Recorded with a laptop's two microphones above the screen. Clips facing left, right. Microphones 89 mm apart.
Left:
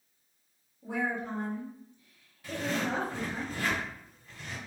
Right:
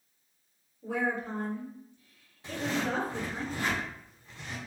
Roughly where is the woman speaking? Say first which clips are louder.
Right 1 dB; left.